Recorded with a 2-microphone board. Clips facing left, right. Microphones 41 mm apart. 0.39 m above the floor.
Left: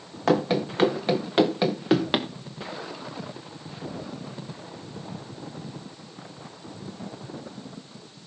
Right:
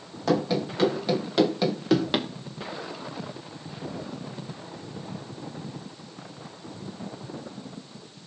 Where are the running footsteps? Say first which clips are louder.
Left 2 dB; 45° left (ahead or behind), 3 m; by 2.3 s 20° left (ahead or behind), 2 m.